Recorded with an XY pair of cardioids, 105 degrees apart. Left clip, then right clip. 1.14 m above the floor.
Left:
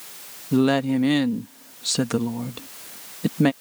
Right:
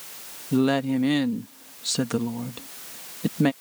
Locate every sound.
0.5 s a woman speaking: 20° left